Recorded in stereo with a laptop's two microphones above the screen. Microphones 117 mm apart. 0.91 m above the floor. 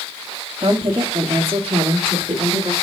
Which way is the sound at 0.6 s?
50° right (ahead or behind).